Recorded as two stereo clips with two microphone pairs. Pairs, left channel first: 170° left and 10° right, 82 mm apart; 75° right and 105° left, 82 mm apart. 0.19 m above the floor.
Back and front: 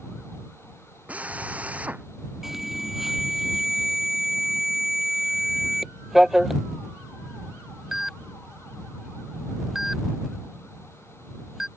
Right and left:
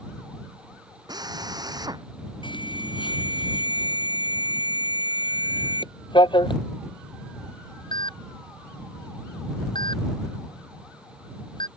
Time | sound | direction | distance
1.1 | a drill | 65° left | ?
2.4 | an alarm | 95° right | ?